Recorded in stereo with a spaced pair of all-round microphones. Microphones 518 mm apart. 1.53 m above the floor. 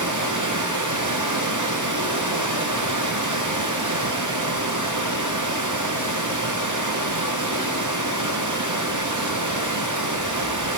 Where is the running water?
35° right (ahead or behind), 0.9 m.